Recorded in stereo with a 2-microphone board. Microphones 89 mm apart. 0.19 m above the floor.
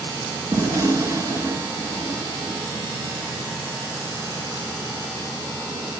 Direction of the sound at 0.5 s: 35° right (ahead or behind).